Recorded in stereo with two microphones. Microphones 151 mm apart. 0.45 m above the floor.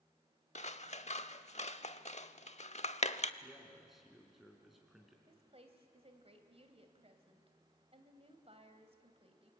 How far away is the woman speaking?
About 2.5 m.